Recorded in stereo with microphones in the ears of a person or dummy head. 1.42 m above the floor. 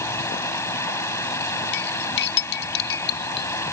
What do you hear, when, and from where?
0.0 s running water: 15° left (ahead or behind)
1.7 s cutlery clinking: 60° left (ahead or behind)